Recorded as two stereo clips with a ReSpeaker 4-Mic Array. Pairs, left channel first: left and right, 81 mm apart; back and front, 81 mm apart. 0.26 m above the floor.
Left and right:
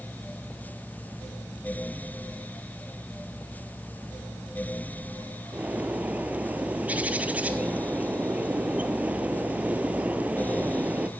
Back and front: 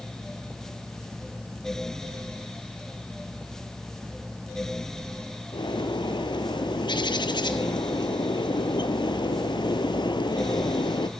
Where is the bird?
160° right, 0.9 m.